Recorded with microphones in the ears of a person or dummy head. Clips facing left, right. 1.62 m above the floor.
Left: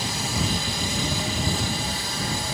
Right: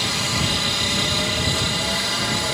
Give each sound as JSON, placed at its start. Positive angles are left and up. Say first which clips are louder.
{"t": 0.0, "sound": "a helicopter", "louder": "right 2 dB", "side_deg": -55}